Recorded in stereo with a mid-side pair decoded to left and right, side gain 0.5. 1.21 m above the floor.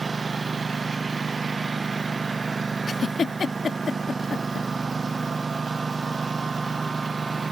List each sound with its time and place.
0.0 s a lawn mower: 25° right
2.9 s a giggle: 35° left